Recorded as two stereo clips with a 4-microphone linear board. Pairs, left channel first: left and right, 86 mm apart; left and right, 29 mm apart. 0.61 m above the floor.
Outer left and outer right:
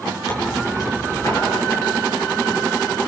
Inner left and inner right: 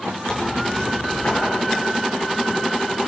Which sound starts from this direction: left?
Tearing paper, at 0.3 s.